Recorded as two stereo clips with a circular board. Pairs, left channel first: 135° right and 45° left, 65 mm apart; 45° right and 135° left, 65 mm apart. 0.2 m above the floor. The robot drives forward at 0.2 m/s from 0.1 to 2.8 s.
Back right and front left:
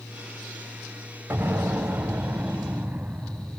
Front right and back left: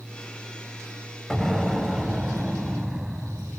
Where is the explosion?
45° left, 1.0 m; by 3.6 s 85° left, 0.9 m.